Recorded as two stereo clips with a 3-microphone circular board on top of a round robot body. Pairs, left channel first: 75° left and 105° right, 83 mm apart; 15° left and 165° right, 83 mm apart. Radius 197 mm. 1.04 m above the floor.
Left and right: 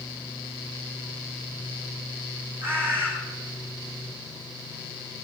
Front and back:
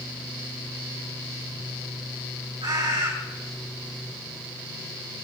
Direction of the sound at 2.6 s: 165° right.